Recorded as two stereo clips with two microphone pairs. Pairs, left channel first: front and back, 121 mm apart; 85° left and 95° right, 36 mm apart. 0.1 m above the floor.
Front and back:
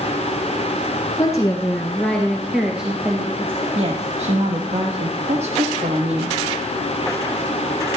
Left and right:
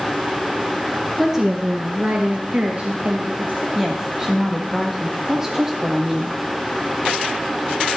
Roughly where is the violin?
I don't hear a violin.